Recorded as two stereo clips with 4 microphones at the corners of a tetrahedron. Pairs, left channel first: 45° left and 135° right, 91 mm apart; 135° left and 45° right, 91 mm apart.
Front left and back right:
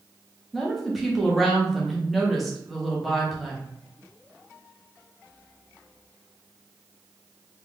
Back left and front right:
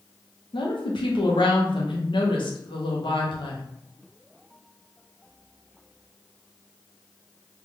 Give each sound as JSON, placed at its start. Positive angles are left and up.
{"t": 0.5, "sound": "a woman speaking", "azimuth_deg": 135, "distance_m": 1.1}